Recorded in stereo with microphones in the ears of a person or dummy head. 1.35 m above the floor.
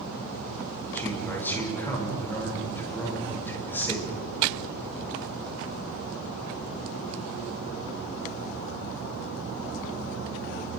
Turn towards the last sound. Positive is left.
turn(degrees=15)  # may be behind; listen again after turning